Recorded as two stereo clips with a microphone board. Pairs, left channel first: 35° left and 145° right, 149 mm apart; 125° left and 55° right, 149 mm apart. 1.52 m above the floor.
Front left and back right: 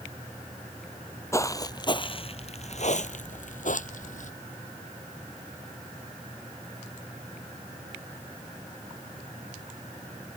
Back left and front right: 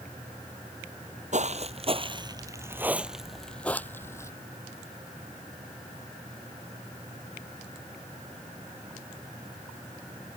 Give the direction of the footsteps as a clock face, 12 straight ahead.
1 o'clock.